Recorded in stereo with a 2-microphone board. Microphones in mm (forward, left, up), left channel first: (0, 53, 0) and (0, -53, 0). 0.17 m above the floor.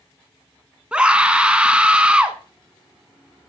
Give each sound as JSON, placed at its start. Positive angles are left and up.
{"t": 0.9, "sound": "a scream", "side_deg": -10, "distance_m": 1.5}